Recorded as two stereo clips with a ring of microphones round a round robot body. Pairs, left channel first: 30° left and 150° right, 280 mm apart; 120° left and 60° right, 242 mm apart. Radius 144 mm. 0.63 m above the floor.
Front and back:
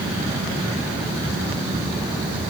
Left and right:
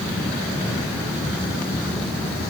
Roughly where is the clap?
No clap in this recording.